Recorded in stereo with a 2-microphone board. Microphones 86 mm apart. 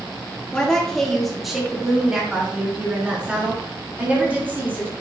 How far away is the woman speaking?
About 2 m.